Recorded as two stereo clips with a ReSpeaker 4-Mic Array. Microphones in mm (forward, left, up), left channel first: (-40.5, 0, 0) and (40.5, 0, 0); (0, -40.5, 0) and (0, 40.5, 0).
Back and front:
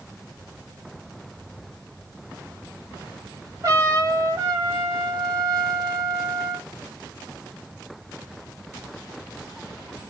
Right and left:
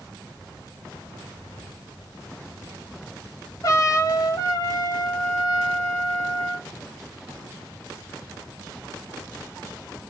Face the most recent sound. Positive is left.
turn(degrees=-45)